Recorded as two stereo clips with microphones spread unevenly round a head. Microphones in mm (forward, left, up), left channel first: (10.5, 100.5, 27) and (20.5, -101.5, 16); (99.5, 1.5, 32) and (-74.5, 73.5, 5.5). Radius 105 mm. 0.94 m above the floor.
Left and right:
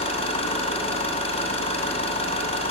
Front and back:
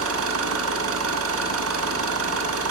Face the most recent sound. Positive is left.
turn(degrees=155)